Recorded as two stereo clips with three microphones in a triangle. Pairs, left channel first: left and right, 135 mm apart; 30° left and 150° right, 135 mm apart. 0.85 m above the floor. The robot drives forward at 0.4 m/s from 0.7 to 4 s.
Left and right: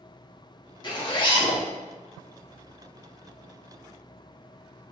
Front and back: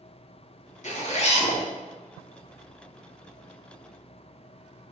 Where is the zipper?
40° left, 1.5 m; by 1.6 s 50° left, 1.3 m.